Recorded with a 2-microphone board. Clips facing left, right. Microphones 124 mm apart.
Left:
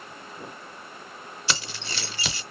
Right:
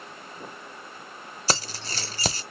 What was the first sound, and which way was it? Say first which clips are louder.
Keys jangling: right 4 dB; 40° right (ahead or behind).